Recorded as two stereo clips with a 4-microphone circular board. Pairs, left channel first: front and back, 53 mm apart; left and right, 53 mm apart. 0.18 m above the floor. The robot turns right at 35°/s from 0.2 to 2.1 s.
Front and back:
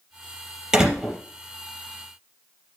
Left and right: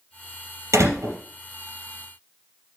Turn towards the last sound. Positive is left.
turn(degrees=-50)